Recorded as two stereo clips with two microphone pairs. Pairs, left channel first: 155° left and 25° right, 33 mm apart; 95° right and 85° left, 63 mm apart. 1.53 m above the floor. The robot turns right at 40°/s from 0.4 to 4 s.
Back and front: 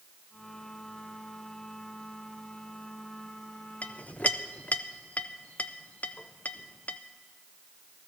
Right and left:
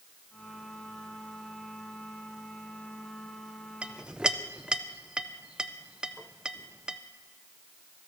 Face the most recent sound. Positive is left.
turn(degrees=150)